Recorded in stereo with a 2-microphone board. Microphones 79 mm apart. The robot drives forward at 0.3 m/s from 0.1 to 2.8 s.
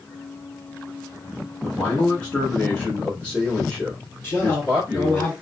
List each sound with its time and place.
1.6 s a man speaking: 15° left (ahead or behind), 1.6 m
4.2 s a man speaking: 30° left (ahead or behind), 2.5 m